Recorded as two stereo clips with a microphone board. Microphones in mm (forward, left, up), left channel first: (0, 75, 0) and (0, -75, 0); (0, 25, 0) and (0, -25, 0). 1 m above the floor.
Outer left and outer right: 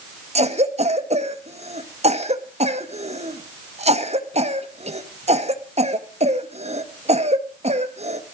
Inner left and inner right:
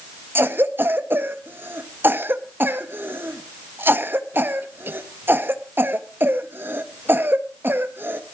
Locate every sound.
0.3 s a cough: 45° right (ahead or behind), 1.4 m